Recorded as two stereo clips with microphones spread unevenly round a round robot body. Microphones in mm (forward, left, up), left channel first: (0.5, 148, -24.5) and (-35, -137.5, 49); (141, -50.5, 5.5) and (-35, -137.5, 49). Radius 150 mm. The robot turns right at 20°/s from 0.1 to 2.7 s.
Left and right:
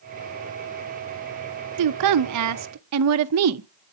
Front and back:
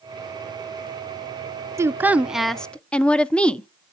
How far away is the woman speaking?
About 0.6 m.